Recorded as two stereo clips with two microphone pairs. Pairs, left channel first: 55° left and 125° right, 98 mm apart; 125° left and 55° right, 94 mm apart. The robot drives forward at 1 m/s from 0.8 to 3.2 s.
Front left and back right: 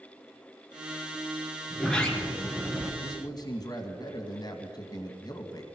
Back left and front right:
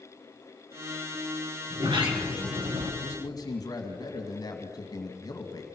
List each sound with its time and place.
1.7 s a sliding door: 25° right, 3.5 m; by 2.9 s 40° right, 2.5 m
3.0 s a man speaking: 80° left, 2 m; by 5.6 s 90° left, 2 m